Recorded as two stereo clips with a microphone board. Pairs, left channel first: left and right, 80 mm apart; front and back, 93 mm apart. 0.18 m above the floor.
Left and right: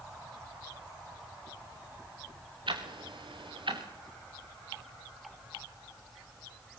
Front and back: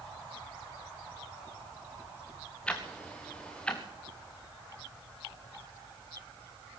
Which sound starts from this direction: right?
Ticking, at 2.7 s.